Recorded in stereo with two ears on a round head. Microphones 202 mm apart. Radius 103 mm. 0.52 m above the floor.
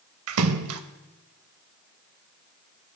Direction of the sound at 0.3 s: 65° right (ahead or behind).